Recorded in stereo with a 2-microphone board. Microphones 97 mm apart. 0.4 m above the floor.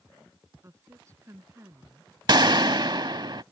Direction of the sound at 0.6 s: 30° right (ahead or behind).